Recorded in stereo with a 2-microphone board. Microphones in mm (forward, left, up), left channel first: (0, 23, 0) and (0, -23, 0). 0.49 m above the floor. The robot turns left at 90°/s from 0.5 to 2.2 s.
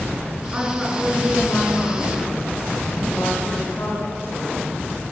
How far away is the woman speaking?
About 6 m.